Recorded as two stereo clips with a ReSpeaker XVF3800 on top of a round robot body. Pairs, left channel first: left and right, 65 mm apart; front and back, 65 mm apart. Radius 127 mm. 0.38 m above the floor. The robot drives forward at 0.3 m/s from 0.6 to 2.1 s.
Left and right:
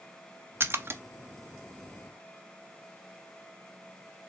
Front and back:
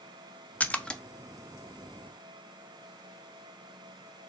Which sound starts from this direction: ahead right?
A splash, at 0.6 s.